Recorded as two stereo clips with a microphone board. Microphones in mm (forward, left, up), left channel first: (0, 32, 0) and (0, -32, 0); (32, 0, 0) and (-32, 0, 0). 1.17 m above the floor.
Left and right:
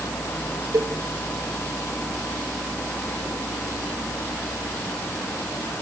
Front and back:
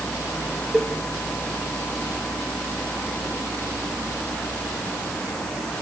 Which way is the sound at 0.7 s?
80° right.